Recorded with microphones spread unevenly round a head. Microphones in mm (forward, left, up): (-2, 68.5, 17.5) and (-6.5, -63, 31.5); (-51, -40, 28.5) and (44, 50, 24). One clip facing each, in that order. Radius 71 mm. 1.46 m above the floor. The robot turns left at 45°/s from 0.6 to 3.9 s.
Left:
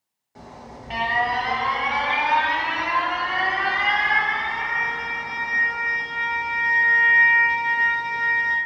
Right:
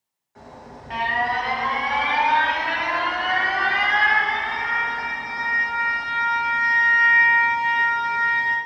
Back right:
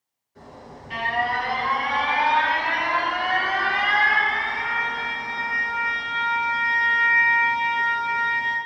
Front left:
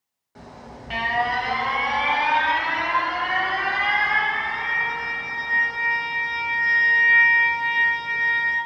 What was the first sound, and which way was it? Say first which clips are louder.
An alarm: left 1 dB, front left 1 dB; 35° left.